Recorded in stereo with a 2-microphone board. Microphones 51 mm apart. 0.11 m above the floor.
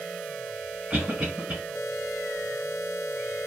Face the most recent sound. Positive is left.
turn(degrees=-25)  # may be behind; listen again after turning